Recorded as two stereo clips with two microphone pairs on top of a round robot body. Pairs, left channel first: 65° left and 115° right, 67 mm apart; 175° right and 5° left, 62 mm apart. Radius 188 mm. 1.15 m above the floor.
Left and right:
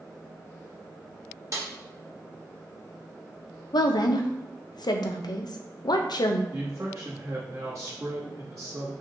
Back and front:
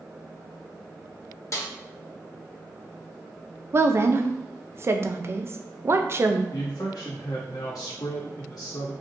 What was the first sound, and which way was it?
A snare drum, 140° right.